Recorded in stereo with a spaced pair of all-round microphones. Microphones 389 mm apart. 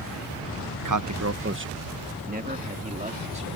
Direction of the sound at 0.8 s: 50° right (ahead or behind).